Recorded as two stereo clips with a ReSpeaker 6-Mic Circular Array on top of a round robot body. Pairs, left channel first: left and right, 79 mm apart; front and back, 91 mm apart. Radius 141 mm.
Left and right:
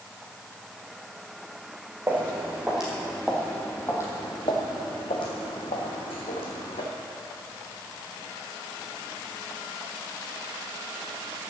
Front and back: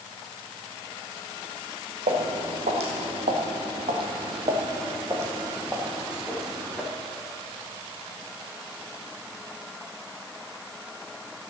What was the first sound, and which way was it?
Footsteps, 160° right.